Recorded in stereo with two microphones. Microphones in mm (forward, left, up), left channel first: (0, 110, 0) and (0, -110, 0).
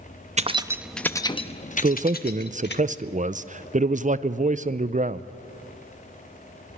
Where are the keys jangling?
30° right (ahead or behind), 0.6 m; by 2.8 s 50° left (ahead or behind), 1.3 m.